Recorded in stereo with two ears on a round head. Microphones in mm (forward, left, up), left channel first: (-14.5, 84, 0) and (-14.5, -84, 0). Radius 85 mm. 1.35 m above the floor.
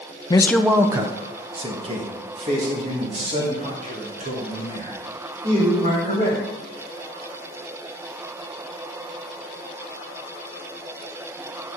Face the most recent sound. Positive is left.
turn(degrees=-40)  # may be behind; listen again after turning